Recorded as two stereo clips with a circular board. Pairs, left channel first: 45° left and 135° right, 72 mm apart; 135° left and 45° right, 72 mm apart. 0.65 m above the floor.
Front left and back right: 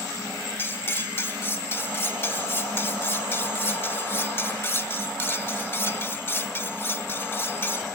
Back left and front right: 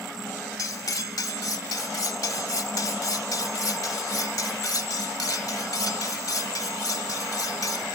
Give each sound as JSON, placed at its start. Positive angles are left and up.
{"t": 0.6, "sound": "cutlery clinking", "azimuth_deg": 100, "distance_m": 1.0}